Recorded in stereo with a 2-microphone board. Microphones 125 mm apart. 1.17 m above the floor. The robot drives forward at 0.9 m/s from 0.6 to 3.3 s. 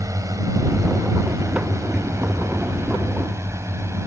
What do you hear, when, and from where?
0.0 s a drone: 25° right (ahead or behind); by 4.1 s 20° right (ahead or behind)